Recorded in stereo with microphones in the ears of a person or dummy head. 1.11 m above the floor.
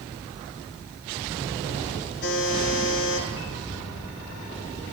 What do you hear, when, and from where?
2.2 s a buzzer: 75° left (ahead or behind), 8.5 m